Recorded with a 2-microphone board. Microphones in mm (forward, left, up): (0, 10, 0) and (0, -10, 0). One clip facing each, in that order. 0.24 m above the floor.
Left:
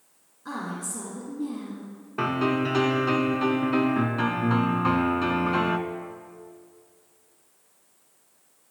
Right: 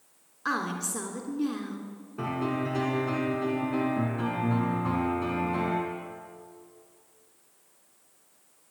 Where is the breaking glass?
I don't hear breaking glass.